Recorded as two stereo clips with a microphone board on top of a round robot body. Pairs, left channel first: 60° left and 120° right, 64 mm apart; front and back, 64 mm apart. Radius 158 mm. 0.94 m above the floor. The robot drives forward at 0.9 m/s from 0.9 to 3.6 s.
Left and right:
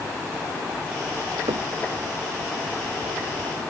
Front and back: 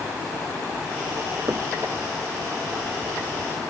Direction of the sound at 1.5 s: 130° right.